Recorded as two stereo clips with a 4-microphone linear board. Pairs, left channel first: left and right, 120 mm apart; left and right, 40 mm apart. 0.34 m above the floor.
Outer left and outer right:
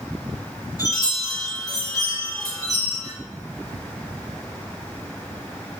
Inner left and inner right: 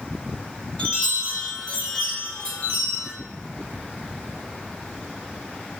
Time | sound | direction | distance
0.8 | a chime | 30° left (ahead or behind) | 2 m